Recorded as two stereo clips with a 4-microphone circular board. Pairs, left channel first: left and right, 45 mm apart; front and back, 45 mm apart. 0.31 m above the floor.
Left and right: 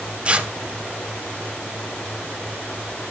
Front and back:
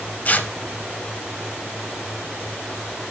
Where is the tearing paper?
35° right, 0.9 m.